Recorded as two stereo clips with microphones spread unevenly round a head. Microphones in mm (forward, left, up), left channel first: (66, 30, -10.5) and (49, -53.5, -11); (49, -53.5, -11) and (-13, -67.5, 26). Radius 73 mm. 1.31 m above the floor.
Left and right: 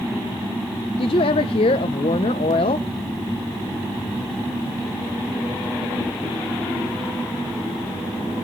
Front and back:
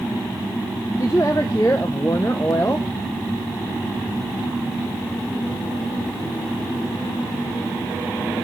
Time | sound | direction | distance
1.0 | a woman speaking | 80° left | 0.7 m